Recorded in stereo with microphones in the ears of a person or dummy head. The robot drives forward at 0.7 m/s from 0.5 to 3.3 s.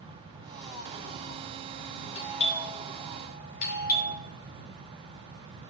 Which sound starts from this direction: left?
A doorbell, at 2.1 s.